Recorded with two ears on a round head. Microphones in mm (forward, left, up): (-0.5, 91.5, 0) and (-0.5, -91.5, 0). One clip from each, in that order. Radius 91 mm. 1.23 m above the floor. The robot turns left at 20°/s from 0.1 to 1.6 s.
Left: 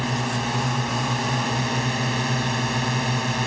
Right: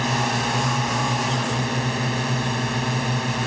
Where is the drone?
160° right; by 3.5 s 170° left.